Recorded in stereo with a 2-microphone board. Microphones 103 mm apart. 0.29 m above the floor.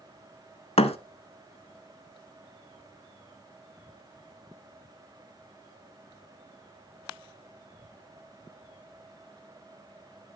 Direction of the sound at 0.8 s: 80° left.